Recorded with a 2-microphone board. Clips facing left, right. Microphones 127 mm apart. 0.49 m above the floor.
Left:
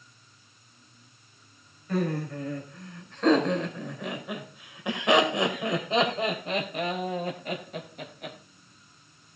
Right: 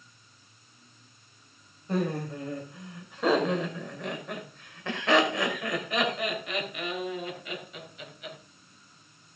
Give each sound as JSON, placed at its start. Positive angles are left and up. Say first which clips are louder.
{"t": 1.9, "sound": "laughter", "louder": "left 1 dB", "side_deg": -25, "distance_m": 2.5}